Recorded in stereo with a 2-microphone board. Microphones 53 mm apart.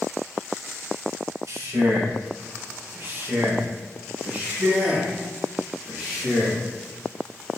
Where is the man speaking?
70° right (ahead or behind), 2.0 m; by 6.6 s 15° right (ahead or behind), 3.5 m.